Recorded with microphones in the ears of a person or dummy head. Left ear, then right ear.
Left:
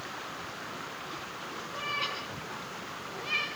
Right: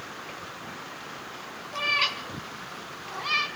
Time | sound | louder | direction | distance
1.7 | a cat meowing | right 8 dB | 50° right (ahead or behind) | 2 m